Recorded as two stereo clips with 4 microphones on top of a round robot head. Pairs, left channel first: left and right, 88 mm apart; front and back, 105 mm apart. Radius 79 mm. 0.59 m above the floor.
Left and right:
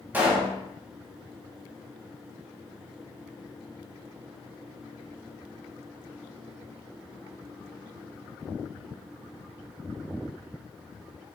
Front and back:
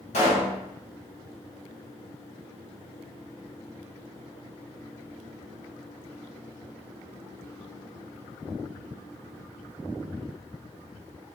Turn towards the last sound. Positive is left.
turn(degrees=-20)